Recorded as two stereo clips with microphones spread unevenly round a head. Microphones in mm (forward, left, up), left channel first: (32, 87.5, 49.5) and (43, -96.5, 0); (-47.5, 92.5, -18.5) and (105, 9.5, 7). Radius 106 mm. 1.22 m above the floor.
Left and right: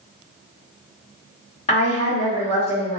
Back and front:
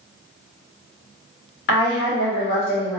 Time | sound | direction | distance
1.7 | a woman speaking | 155° left | 1.1 m